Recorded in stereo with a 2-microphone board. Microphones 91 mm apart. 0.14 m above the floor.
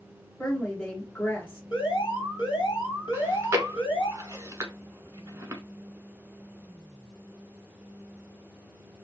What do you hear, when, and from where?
0.4 s a woman speaking: 15° left (ahead or behind), 1.6 m
1.7 s an alarm: 65° left (ahead or behind), 1.8 m
3.1 s chewing: 30° right (ahead or behind), 0.8 m